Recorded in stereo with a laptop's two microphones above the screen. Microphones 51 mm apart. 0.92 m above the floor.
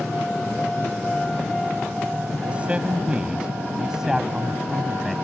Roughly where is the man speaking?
Right.